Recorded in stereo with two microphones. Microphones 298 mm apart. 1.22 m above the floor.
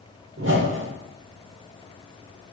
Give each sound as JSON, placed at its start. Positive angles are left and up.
{"t": 0.4, "sound": "a whoosh", "side_deg": -40, "distance_m": 0.7}